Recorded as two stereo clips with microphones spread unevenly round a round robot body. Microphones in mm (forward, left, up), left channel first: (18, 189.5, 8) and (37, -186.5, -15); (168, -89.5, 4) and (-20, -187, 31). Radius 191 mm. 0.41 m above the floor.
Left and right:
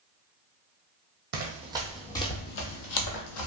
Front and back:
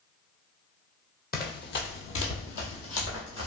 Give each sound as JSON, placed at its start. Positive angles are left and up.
{"t": 1.3, "sound": "running footsteps", "azimuth_deg": -25, "distance_m": 0.8}